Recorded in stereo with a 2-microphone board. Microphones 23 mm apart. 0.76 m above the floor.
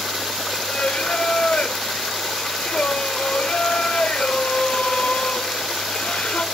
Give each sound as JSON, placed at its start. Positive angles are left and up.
{"t": 0.7, "sound": "singing", "side_deg": 60, "distance_m": 0.6}